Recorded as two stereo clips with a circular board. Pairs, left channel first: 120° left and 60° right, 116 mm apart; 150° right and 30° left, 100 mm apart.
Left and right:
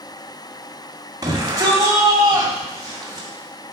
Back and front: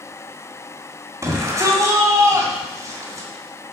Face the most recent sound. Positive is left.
turn(degrees=-15)